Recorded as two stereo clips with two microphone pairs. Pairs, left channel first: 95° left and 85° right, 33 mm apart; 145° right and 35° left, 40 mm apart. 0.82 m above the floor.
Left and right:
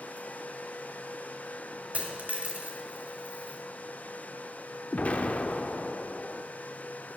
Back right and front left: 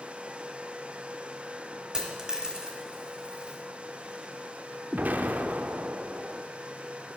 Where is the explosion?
65° left, 0.5 m.